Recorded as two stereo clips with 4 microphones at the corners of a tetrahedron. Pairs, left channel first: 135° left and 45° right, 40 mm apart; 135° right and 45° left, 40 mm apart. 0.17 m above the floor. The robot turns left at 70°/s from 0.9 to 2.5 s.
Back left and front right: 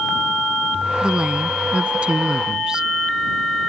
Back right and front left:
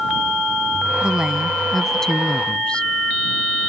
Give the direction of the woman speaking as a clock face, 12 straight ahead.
12 o'clock.